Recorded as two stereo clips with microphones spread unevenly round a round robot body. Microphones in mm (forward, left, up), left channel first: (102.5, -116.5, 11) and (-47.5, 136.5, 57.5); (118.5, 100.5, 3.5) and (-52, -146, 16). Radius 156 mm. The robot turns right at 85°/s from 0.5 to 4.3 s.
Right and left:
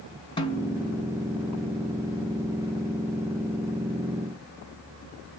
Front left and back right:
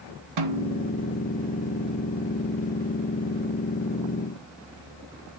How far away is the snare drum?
About 1.7 m.